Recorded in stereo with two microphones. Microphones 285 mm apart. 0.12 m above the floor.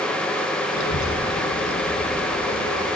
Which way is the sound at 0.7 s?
75° left (ahead or behind).